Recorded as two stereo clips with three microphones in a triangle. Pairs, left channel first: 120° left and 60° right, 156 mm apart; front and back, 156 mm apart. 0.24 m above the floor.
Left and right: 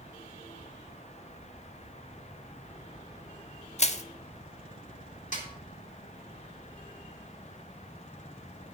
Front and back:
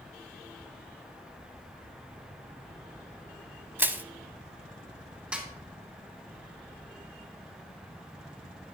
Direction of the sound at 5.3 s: 100° left.